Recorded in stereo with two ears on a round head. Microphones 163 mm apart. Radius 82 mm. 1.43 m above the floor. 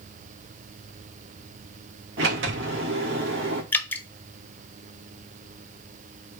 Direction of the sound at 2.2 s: 80° right.